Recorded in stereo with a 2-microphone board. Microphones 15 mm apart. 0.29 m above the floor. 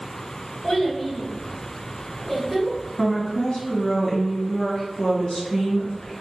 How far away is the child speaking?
About 1.4 m.